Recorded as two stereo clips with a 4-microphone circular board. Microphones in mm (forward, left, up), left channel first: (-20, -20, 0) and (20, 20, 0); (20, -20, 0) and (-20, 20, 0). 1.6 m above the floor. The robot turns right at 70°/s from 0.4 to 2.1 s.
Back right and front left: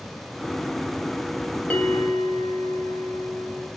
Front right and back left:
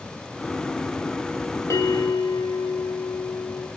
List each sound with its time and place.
1.7 s a bell: 70° right, 4 m; by 3.7 s 40° right, 4 m